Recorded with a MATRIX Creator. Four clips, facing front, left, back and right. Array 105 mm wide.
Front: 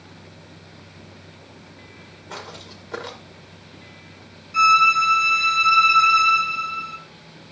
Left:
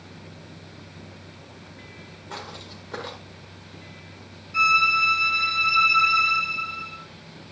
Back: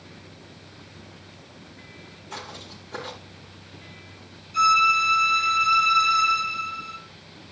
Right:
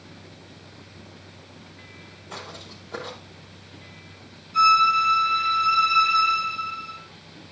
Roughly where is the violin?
Ahead left.